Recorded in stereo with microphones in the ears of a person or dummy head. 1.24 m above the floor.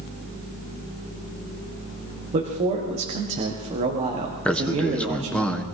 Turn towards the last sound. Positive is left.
turn(degrees=5)  # may be behind; listen again after turning